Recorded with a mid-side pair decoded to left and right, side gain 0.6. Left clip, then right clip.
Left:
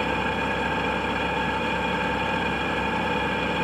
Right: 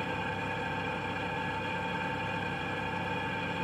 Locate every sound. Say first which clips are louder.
0.0 s an engine running: left 9 dB; 55° left, 0.9 m